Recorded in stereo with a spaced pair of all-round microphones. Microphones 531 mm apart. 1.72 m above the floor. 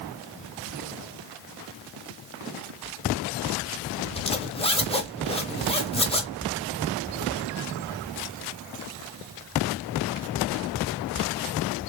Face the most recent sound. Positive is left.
turn(degrees=10)  # may be behind; listen again after turning